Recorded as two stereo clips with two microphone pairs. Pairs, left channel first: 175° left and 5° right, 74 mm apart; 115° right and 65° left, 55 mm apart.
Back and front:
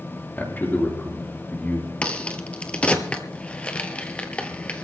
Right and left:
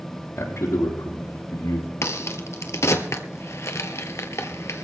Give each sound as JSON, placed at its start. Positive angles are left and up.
{"t": 0.4, "sound": "a man speaking", "azimuth_deg": -120, "distance_m": 3.5}
{"t": 2.0, "sound": "a crack", "azimuth_deg": -110, "distance_m": 1.2}